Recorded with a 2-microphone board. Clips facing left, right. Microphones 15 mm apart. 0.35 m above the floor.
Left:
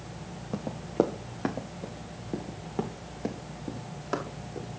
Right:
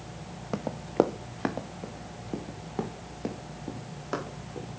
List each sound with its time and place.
0.5 s running footsteps: 35° right (ahead or behind), 1.0 m; by 4.7 s 5° left (ahead or behind), 4 m